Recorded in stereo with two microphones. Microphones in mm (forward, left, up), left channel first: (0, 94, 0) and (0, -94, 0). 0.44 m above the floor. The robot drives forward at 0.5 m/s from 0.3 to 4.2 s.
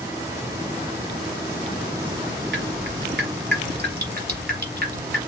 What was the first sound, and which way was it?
Dripping, 85° right.